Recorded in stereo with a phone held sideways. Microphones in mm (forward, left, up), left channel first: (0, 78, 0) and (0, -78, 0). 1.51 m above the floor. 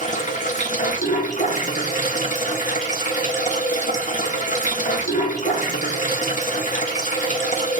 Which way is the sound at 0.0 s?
55° left (ahead or behind).